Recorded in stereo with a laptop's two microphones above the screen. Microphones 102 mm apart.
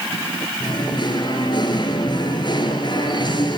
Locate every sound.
0.6 s singing: 50° left (ahead or behind), 3.5 m